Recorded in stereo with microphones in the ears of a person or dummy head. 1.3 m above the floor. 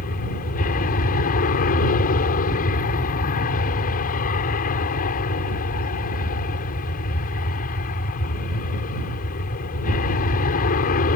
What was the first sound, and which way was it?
An aircraft, 45° left (ahead or behind).